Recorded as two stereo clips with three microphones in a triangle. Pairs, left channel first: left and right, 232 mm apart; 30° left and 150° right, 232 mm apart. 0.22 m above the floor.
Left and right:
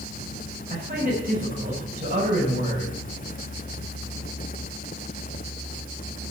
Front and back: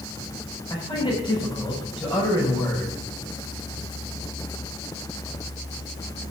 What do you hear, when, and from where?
0.7 s a man speaking: 40° right, 6.5 m